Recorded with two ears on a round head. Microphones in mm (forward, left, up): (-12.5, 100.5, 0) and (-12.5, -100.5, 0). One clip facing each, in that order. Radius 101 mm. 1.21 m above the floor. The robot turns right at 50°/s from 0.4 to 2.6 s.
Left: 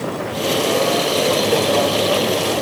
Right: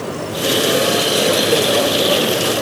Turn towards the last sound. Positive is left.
No sound to turn to.